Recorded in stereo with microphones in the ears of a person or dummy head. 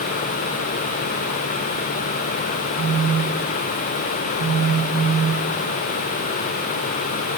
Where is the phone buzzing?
25° right (ahead or behind), 0.6 m.